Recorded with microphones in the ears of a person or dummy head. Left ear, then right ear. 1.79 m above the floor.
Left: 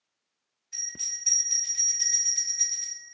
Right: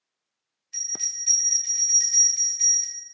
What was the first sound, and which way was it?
A bell, 35° left (ahead or behind).